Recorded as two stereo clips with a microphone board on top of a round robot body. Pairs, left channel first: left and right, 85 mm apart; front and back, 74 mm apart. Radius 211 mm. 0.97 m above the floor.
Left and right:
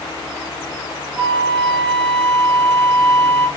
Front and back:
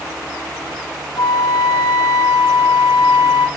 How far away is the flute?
About 2.5 m.